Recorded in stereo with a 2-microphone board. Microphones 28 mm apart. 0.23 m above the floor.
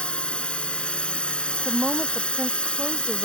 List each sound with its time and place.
0.0 s a drone: 40° left (ahead or behind)
1.6 s a woman speaking: 25° right (ahead or behind)